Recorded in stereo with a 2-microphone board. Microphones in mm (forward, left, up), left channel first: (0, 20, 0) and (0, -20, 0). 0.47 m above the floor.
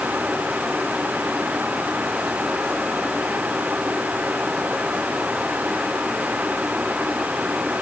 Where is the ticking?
I don't hear ticking.